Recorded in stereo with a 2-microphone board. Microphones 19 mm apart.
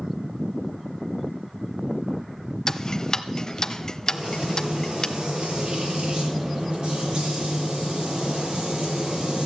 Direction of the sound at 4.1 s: 60° right (ahead or behind).